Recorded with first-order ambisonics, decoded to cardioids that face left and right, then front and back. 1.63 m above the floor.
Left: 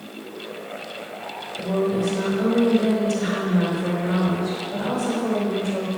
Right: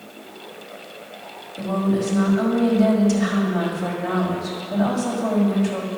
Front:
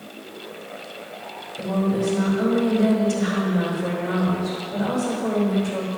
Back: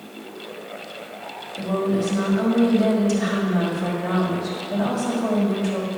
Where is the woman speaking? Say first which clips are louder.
Left 1 dB, back 1 dB; 140° right, 4 m.